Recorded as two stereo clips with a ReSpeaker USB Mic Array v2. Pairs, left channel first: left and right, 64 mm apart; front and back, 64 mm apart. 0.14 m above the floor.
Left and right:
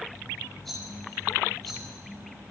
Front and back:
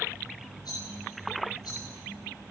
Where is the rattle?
5° left, 5.5 m.